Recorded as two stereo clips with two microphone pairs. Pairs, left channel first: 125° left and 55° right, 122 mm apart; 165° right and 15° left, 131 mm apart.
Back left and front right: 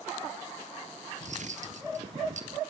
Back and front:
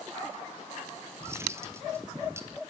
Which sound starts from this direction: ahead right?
Cutlery clinking, at 1.2 s.